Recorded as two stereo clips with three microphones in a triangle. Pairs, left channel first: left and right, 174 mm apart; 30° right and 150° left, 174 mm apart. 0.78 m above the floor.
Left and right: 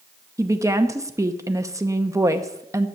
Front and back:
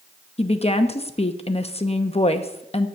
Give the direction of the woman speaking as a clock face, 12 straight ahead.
1 o'clock.